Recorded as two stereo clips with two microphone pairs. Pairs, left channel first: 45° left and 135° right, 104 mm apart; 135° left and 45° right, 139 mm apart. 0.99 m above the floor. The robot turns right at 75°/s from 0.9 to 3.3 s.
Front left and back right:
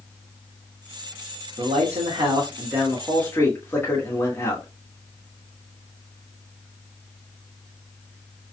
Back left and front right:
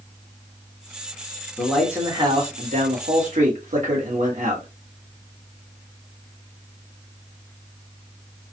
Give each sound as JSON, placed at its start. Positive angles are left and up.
{"t": 1.6, "sound": "a man speaking", "azimuth_deg": -150, "distance_m": 1.8}